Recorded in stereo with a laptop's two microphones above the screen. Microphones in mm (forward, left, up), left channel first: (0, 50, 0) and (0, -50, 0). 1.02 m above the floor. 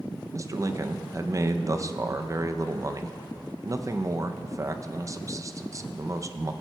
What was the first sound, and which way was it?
A man speaking, 35° right (ahead or behind).